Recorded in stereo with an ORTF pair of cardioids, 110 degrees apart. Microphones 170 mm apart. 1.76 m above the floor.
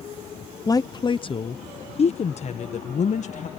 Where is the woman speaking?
20° left; by 3.5 s 45° left.